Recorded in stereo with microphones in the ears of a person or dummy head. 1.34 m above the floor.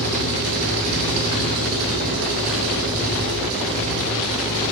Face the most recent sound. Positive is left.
turn(degrees=-85)